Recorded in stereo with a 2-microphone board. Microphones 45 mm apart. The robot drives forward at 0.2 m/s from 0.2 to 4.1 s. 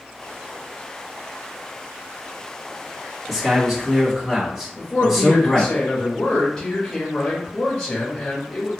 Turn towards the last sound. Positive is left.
turn(degrees=15)  # may be behind; listen again after turning